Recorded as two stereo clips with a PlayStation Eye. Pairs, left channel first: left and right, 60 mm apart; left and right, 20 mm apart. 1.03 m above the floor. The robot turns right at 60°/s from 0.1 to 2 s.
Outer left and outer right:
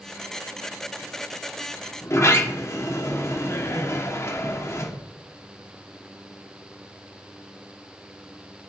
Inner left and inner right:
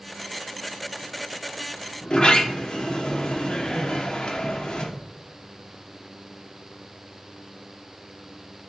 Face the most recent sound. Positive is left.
turn(degrees=45)  # may be behind; listen again after turning